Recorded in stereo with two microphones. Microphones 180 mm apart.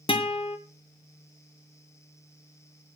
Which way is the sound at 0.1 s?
30° left (ahead or behind).